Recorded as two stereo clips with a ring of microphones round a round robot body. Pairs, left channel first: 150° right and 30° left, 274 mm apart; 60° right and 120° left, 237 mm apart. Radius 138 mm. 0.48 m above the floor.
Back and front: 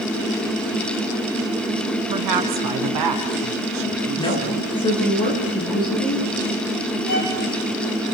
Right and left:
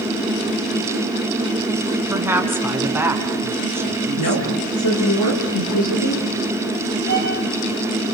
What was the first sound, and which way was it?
A woman speaking, 40° left.